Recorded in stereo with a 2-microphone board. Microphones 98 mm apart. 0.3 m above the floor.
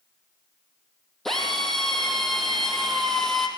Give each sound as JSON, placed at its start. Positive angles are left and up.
{"t": 1.2, "sound": "a drill", "side_deg": 5, "distance_m": 4.0}